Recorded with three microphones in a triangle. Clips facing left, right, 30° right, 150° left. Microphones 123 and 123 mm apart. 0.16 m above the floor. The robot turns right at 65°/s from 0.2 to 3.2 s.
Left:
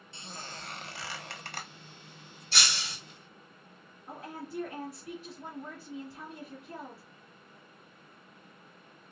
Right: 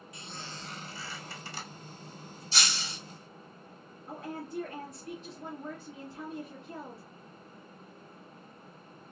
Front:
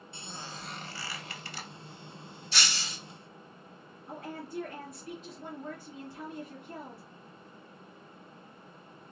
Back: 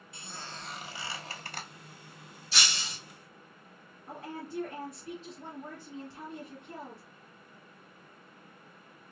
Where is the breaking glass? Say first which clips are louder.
Even, even; 65° left, 2.5 m; by 3.0 s 95° left, 2.5 m.